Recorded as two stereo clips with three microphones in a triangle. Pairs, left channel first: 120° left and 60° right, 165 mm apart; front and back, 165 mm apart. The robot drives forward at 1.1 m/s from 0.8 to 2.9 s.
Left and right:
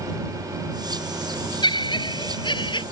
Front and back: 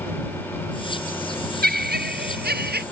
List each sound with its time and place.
1.6 s laughter: straight behind